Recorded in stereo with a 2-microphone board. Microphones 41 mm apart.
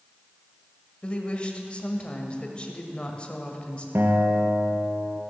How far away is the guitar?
About 1.2 m.